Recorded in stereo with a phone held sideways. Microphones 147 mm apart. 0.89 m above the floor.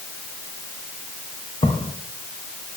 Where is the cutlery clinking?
No cutlery clinking in this recording.